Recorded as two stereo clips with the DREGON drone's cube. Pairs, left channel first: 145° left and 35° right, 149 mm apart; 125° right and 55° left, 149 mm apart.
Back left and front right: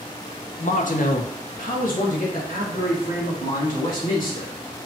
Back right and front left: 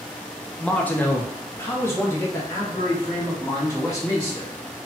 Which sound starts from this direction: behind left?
A man speaking, at 0.6 s.